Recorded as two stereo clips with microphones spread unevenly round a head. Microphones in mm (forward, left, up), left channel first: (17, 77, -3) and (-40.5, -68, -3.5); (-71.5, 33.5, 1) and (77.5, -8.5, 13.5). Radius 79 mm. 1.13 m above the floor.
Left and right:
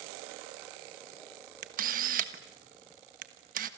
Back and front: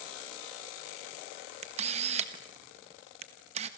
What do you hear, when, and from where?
1.6 s a camera shutter: 70° right, 1.4 m